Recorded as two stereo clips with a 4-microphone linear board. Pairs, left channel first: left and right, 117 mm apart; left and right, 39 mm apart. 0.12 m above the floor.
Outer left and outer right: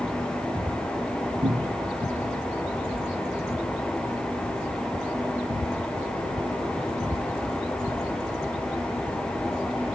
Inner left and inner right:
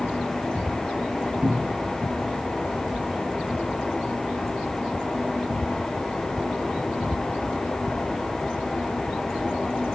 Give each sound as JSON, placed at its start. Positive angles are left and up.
{"t": 1.4, "sound": "a cupboard door", "side_deg": -55, "distance_m": 2.5}